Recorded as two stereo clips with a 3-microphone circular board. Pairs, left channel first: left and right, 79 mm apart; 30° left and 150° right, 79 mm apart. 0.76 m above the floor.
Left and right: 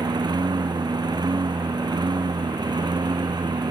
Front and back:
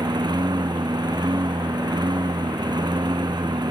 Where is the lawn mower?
125° right.